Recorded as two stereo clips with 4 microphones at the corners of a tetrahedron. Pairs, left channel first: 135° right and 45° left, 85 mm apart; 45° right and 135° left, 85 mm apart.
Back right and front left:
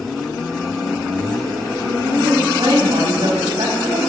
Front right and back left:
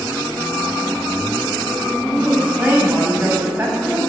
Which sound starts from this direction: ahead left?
A woman speaking, at 2.0 s.